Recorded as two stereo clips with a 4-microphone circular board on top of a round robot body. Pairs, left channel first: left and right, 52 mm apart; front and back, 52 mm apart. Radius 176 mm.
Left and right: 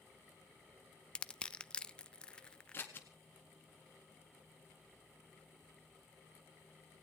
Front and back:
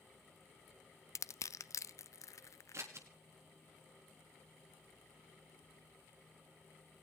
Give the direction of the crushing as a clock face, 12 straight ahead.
11 o'clock.